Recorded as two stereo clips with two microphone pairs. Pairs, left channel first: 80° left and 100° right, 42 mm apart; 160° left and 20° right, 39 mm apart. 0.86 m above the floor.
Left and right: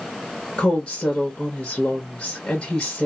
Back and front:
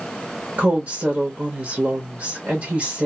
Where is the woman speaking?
20° left, 1.2 m.